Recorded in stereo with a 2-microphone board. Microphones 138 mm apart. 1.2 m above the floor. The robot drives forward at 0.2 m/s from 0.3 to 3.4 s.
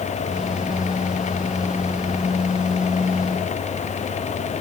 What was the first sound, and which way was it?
Only background noise.